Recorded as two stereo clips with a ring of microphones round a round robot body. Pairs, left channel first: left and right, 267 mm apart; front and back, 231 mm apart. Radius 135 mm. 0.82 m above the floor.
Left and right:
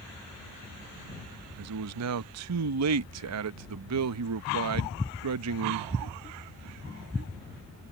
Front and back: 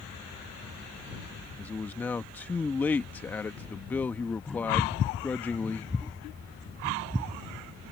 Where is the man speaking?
80° right.